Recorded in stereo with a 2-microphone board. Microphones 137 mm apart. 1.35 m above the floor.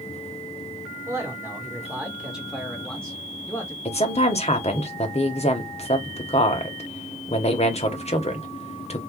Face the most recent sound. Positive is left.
turn(degrees=50)  # may be behind; listen again after turning